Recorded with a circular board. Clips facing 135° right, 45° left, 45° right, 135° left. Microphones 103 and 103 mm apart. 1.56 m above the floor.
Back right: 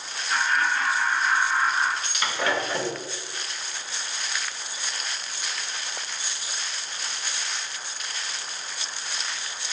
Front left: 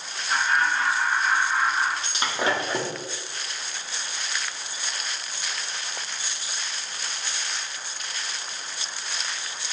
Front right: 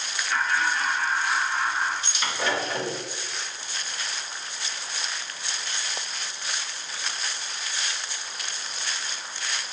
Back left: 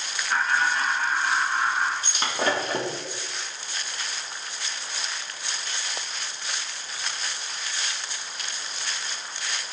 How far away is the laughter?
About 2.5 m.